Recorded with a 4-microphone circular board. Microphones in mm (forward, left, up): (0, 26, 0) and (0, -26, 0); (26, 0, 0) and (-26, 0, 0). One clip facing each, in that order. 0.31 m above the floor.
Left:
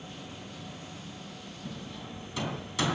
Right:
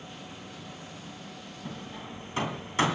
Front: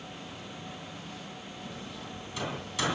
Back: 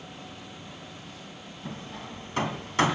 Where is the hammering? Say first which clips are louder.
Right 2 dB, back 5 dB; 140° right, 2 m.